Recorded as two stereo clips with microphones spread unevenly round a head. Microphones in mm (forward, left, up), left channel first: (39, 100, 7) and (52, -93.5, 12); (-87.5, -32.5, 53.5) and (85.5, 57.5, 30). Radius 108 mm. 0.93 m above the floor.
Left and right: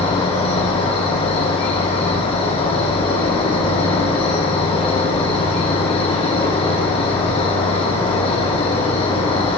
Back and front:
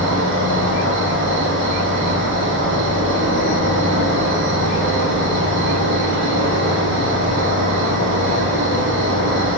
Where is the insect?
35° left, 2 m.